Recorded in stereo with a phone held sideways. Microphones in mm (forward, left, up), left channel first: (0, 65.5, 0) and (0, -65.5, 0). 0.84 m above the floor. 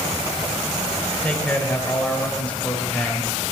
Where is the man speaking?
10° left (ahead or behind), 3.5 m.